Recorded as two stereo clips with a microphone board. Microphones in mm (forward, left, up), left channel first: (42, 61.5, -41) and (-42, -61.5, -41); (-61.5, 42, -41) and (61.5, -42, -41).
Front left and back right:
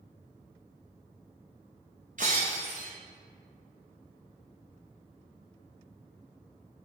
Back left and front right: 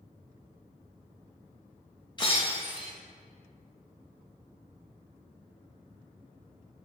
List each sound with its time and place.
2.2 s breaking glass: 155° right, 3 m